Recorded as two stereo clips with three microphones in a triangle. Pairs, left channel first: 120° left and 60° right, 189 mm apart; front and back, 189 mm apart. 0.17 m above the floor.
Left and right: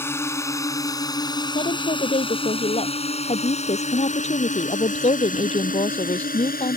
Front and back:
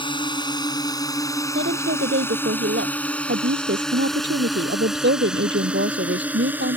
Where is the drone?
50° left; by 6.8 s 105° left.